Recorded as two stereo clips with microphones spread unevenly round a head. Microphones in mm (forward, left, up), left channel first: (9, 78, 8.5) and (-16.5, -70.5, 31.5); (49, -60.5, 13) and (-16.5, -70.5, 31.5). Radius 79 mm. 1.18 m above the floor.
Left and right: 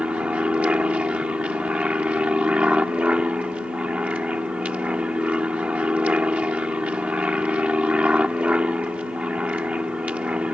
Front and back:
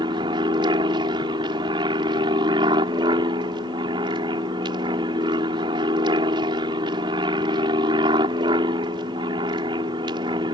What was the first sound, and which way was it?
An aircraft, 175° left.